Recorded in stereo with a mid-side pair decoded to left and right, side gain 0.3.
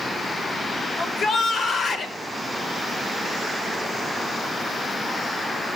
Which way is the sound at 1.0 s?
65° left.